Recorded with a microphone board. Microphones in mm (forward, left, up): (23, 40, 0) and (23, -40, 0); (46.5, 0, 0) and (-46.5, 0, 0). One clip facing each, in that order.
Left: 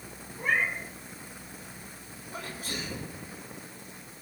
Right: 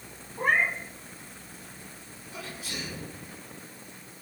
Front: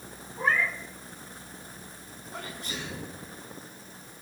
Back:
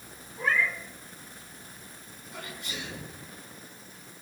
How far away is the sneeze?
About 5 m.